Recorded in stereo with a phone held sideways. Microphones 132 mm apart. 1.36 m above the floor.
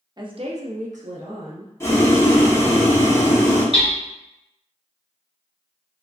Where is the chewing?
I don't hear chewing.